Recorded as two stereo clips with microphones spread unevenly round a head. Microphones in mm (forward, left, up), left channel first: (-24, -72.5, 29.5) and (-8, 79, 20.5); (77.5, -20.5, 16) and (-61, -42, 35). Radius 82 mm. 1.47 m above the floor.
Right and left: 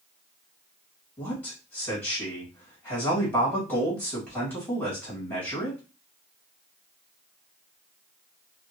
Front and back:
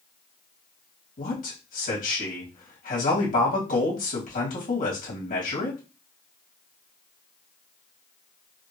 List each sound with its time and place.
1.2 s a man speaking: 15° right, 2 m